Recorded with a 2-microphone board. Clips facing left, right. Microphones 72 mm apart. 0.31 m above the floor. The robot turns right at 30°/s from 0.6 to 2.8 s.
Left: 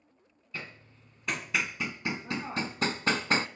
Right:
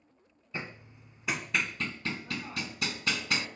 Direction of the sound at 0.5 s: 25° right (ahead or behind).